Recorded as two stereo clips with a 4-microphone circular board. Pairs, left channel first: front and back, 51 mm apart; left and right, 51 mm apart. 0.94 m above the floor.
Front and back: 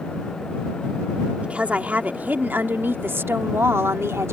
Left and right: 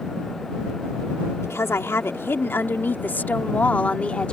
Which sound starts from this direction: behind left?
A woman speaking, at 1.4 s.